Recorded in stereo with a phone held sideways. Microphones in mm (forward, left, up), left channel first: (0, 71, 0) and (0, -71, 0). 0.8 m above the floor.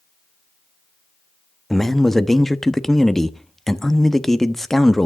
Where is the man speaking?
Centre (ahead or behind), 0.8 m.